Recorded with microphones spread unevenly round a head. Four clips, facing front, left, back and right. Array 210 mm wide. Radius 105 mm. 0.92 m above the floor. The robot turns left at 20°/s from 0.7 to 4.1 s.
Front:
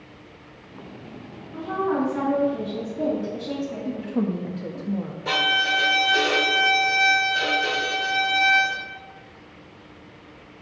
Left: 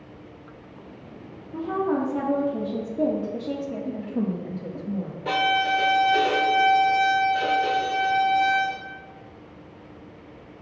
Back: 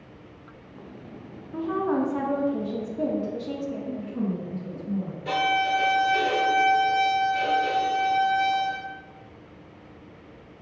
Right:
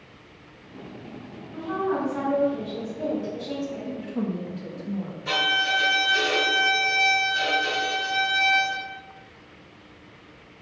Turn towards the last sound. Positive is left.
turn(degrees=65)